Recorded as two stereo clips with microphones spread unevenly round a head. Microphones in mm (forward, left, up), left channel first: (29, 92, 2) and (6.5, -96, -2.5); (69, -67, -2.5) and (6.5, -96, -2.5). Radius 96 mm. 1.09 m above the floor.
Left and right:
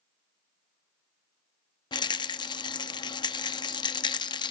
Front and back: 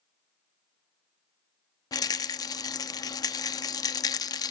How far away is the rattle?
About 0.7 m.